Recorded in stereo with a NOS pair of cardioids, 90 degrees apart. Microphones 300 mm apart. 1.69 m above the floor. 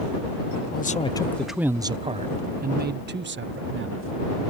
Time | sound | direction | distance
0.7 | a man speaking | 30° left | ?